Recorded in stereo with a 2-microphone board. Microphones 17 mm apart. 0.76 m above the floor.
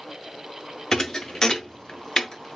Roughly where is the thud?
Left.